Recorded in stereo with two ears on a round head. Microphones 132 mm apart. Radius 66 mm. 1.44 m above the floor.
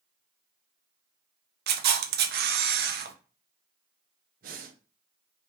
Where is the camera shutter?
75° right (ahead or behind), 0.7 m.